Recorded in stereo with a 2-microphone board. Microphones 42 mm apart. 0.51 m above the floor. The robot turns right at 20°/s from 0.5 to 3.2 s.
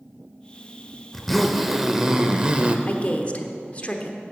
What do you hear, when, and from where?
1.1 s a zipper: 175° left, 0.7 m; by 2.8 s 155° right, 0.7 m
2.9 s a woman speaking: 40° left (ahead or behind), 1.0 m; by 4.2 s 35° left (ahead or behind), 1.0 m